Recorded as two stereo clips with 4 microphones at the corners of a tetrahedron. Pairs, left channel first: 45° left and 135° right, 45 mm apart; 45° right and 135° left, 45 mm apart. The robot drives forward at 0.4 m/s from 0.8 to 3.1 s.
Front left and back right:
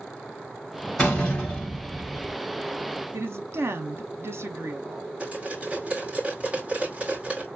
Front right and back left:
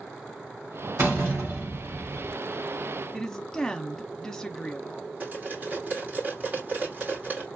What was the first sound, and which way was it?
A door slam, 105° left.